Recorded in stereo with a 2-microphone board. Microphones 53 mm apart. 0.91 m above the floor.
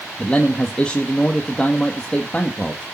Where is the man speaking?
20° left (ahead or behind), 1.6 m.